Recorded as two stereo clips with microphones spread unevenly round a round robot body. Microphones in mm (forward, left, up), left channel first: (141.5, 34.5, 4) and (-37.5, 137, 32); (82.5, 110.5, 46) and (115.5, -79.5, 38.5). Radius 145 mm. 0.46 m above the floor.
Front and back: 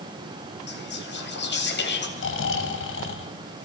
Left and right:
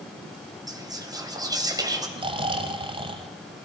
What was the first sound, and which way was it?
Whispering, 10° right.